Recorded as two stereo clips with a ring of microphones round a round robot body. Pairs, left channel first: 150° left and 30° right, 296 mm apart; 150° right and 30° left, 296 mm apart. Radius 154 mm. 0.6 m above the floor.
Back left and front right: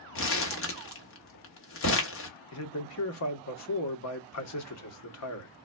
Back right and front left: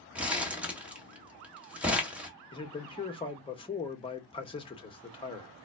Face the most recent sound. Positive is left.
turn(degrees=140)